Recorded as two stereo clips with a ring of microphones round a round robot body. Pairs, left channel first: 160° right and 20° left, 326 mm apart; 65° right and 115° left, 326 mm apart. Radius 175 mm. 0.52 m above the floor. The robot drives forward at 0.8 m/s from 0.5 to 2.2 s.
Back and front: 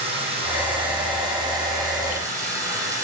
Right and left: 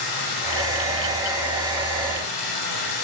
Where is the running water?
50° right, 9.5 m; by 3.0 s 60° right, 8.5 m.